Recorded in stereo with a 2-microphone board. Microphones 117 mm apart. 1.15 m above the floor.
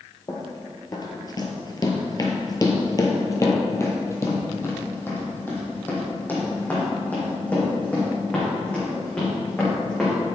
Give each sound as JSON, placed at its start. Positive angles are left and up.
{"t": 0.3, "sound": "running footsteps", "side_deg": 30, "distance_m": 1.5}